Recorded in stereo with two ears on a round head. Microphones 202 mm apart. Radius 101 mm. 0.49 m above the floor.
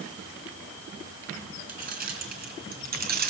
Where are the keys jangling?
40° right (ahead or behind), 4 m; by 3.3 s 45° right (ahead or behind), 3 m.